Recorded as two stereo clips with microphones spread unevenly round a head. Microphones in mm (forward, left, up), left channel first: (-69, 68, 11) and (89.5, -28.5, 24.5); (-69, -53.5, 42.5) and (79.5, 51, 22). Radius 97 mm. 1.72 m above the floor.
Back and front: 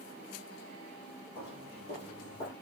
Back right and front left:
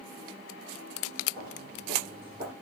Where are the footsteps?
95° left, 2 m; by 2.5 s 105° left, 3.5 m.